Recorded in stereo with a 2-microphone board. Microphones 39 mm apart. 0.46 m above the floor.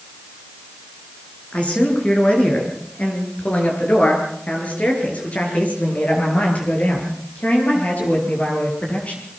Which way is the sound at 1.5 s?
35° left (ahead or behind).